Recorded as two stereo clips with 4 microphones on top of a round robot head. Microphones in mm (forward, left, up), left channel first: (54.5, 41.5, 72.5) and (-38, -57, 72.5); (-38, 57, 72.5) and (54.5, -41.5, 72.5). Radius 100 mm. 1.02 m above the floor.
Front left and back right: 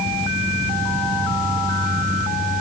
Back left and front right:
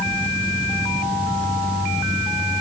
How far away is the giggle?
No giggle in this recording.